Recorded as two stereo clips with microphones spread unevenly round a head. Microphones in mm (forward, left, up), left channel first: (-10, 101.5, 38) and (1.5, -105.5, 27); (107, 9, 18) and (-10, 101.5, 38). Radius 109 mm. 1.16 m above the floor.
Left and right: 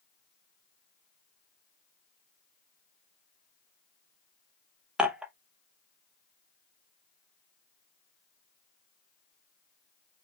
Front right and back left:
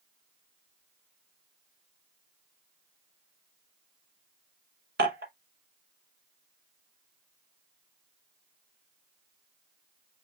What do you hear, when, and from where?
5.0 s dishes clattering: 175° right, 0.7 m